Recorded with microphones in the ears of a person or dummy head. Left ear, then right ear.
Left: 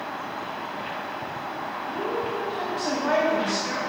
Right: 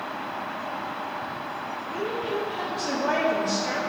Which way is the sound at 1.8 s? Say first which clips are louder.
Left 2 dB; 5° right (ahead or behind).